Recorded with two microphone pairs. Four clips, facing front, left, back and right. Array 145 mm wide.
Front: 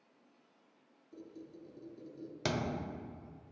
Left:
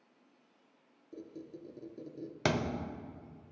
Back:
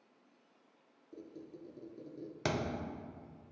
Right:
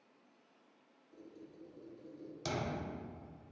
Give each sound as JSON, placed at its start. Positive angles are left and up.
{"t": 1.1, "sound": "a squeak", "azimuth_deg": 105, "distance_m": 0.6}
{"t": 2.5, "sound": "a thud", "azimuth_deg": 85, "distance_m": 0.6}